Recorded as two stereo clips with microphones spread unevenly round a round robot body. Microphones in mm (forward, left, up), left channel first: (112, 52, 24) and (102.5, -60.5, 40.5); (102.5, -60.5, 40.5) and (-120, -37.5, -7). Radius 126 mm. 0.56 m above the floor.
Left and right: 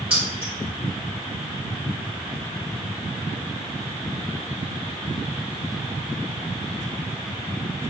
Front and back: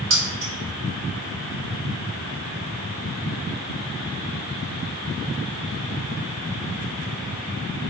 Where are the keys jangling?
Straight behind, 1.5 m.